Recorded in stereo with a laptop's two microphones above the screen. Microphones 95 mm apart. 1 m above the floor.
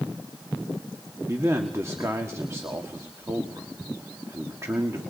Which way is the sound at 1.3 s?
30° right (ahead or behind).